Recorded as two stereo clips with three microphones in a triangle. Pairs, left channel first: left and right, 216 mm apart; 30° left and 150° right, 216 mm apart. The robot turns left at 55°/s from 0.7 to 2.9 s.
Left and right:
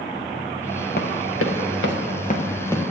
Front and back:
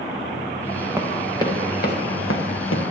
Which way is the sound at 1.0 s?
130° left.